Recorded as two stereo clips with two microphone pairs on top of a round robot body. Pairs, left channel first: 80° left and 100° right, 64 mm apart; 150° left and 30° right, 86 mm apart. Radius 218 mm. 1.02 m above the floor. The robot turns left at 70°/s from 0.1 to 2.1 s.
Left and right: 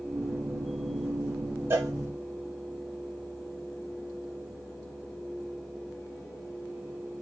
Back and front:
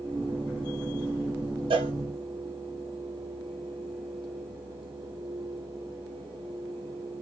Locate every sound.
1.7 s a cowbell: 45° right, 1.1 m; by 1.9 s 60° right, 1.1 m